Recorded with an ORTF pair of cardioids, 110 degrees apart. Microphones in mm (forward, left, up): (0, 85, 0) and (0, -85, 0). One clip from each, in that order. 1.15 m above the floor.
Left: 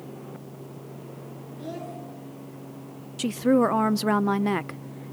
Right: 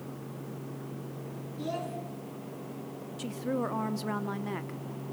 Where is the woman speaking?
50° left, 0.6 m.